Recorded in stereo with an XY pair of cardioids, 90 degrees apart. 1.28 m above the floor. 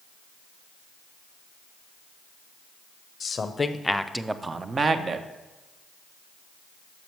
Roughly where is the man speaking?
Ahead left.